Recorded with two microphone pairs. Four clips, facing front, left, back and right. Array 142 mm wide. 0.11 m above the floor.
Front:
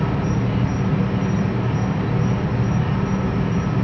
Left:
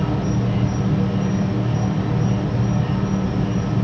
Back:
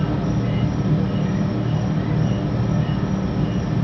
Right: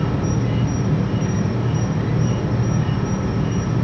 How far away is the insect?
About 3 m.